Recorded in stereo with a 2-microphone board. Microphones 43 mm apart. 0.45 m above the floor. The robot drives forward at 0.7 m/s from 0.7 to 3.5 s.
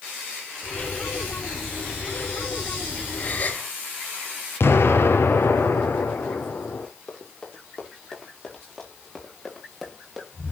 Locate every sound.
3.2 s a gasp: 35° left (ahead or behind), 2 m; by 3.7 s 40° left (ahead or behind), 2 m
4.6 s an explosion: 80° left, 3.5 m
7.1 s running footsteps: 20° left (ahead or behind), 9 m; by 10.3 s centre (ahead or behind), 6.5 m